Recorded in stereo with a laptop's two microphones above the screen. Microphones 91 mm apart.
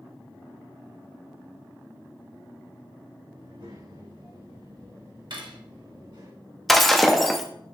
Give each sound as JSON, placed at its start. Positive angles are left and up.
{"t": 3.4, "sound": "a child speaking", "side_deg": -85, "distance_m": 4.0}
{"t": 5.3, "sound": "cutlery clinking", "side_deg": -60, "distance_m": 1.0}
{"t": 6.7, "sound": "breaking glass", "side_deg": 0, "distance_m": 0.6}